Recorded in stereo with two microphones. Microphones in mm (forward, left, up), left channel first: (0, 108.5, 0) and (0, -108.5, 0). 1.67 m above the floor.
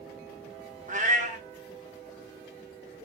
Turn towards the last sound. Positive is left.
turn(degrees=-40)  # may be behind; listen again after turning